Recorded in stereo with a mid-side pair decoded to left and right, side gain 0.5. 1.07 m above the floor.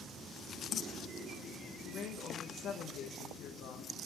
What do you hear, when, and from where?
1.9 s a woman speaking: 70° left, 0.6 m